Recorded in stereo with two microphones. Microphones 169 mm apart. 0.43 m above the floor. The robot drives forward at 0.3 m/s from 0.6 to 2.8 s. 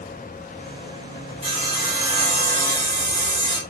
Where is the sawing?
30° right (ahead or behind), 2.5 m; by 3.6 s 25° right (ahead or behind), 2.5 m.